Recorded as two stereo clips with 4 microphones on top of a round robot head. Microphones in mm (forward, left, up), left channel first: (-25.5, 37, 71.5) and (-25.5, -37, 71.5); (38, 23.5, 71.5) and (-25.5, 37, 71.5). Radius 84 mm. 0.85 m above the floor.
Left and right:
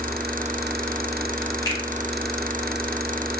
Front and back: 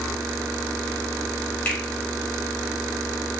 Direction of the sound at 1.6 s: 50° left.